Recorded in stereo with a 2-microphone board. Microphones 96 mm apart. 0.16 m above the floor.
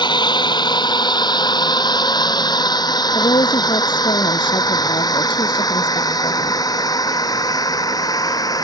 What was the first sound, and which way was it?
A drone, 50° left (ahead or behind).